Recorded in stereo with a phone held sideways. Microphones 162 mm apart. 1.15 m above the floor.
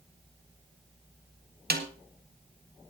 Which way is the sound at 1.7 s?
80° right.